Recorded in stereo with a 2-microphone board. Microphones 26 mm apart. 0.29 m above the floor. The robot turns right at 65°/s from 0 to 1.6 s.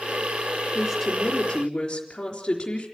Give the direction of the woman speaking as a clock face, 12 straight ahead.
1 o'clock.